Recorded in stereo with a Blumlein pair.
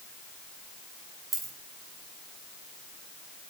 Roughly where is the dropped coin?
Ahead.